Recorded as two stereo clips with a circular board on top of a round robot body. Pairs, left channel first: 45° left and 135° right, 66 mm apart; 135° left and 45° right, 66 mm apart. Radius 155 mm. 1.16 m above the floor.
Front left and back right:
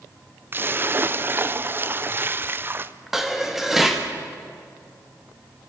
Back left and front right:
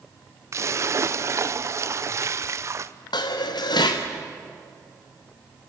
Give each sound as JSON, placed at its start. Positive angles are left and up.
{"t": 0.5, "sound": "a splash", "azimuth_deg": -80, "distance_m": 0.8}
{"t": 3.1, "sound": "dishes clattering", "azimuth_deg": 140, "distance_m": 1.3}